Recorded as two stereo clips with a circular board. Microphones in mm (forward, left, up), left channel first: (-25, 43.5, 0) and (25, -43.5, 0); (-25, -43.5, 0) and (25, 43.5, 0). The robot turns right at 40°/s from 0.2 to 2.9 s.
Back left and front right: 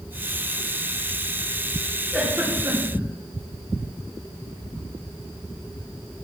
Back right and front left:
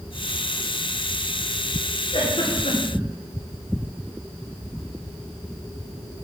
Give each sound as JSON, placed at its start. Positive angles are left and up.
{"t": 2.1, "sound": "a giggle", "azimuth_deg": -150, "distance_m": 3.5}